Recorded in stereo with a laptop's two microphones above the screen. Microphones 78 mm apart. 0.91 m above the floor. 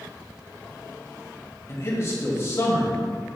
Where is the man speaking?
35° left (ahead or behind), 1.7 m.